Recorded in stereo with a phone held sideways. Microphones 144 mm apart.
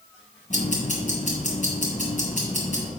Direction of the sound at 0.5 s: 65° left (ahead or behind).